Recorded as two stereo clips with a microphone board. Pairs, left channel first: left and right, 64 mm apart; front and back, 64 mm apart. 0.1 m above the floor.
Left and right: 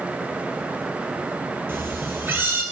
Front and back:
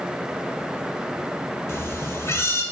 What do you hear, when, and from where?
1.7 s a cat meowing: 40° right, 0.6 m